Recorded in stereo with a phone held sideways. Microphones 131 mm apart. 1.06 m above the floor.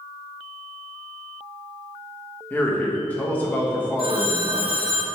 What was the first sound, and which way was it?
A man speaking, 15° left (ahead or behind).